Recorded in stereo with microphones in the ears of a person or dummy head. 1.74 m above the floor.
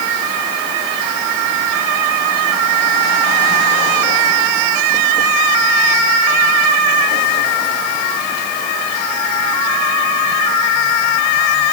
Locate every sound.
Only background noise.